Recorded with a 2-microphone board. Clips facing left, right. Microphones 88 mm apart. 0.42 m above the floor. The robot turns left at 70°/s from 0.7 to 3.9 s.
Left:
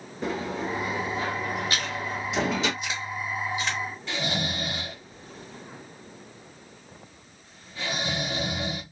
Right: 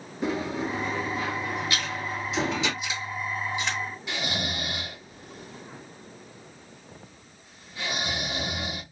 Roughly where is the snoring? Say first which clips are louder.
Left 3 dB; centre.